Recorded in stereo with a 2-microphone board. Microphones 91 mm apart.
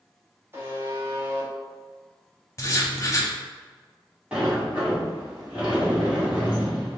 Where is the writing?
35° left (ahead or behind), 0.7 m.